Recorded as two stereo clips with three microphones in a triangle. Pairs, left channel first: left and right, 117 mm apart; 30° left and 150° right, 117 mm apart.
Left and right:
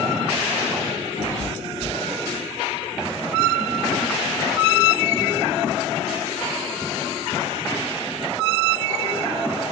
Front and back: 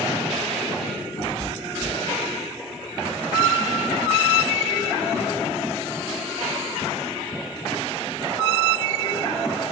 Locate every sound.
1.2 s a cat meowing: 60° left, 3.5 m